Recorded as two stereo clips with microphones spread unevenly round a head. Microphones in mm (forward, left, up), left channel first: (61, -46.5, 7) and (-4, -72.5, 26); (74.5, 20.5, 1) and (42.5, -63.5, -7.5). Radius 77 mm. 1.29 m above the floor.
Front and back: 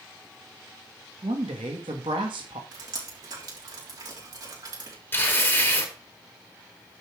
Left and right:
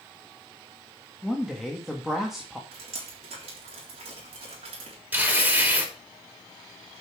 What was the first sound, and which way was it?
A woman speaking, 160° left.